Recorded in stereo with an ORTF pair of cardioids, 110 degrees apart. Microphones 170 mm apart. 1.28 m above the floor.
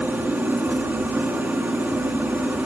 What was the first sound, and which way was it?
An engine running, 10° right.